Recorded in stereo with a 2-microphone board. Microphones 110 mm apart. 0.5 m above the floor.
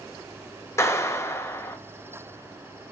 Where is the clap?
25° left (ahead or behind), 2 m.